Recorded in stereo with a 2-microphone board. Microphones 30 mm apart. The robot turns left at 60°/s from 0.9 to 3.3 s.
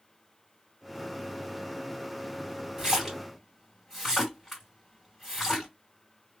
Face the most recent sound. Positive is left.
turn(degrees=5)  # may be behind; listen again after turning